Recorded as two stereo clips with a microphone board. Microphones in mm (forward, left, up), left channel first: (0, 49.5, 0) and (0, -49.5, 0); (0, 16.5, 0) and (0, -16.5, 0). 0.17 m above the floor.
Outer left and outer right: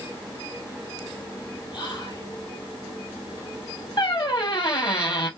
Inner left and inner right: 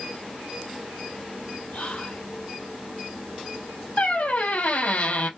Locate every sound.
1.7 s whispering: 55° left (ahead or behind), 2 m
4.0 s a squeak: 60° left (ahead or behind), 1.1 m